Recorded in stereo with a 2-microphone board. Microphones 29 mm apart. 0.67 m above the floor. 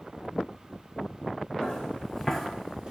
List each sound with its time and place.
1.6 s footsteps: 35° left (ahead or behind), 0.9 m; by 2.9 s 30° right (ahead or behind), 0.7 m